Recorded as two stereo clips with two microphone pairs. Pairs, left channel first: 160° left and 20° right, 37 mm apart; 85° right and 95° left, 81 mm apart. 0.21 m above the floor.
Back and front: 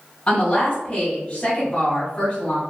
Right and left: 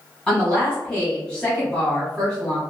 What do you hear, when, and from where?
0.3 s a woman speaking: 155° right, 1.2 m